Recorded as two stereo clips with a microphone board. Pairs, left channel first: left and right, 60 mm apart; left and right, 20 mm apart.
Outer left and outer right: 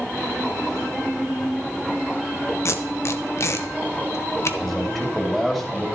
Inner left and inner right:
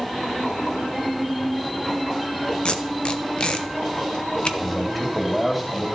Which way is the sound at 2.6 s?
45° left (ahead or behind).